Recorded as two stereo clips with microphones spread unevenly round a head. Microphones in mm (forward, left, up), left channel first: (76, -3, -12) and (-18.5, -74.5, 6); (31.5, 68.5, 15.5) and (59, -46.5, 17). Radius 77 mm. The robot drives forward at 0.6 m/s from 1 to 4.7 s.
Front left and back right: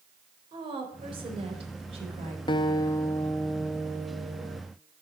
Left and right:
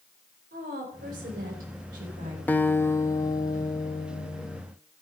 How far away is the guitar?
About 0.8 m.